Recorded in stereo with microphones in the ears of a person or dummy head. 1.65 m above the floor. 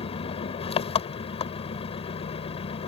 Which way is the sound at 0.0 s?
40° left (ahead or behind).